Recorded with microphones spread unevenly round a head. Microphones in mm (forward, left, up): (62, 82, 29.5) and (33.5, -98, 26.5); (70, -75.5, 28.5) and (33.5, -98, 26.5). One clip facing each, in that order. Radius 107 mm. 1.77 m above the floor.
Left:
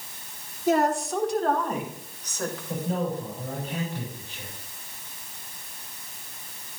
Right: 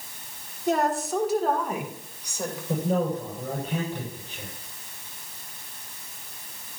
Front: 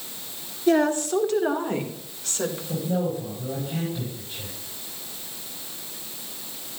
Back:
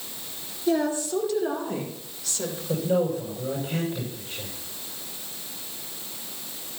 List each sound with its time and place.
0.7 s a woman speaking: 5° right, 2.5 m; by 2.6 s 20° right, 3.5 m
2.7 s a man speaking: 120° right, 6.5 m